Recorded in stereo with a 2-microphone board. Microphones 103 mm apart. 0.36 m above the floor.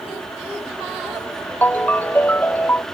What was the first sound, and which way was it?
A ringtone, 15° left (ahead or behind).